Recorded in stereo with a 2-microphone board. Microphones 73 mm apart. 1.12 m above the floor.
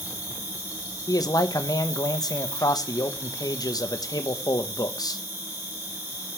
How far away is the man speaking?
About 1.0 m.